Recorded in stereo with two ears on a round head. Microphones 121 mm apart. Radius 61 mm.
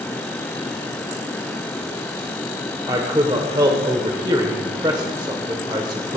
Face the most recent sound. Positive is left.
turn(degrees=-30)  # may be behind; listen again after turning